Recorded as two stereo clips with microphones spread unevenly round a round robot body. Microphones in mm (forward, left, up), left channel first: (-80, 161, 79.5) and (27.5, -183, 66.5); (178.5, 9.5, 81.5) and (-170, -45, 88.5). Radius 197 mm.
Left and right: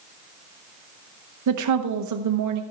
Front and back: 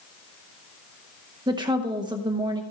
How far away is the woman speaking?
About 0.9 m.